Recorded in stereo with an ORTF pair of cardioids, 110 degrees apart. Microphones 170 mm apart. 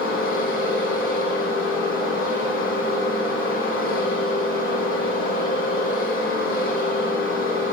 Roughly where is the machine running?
Ahead left.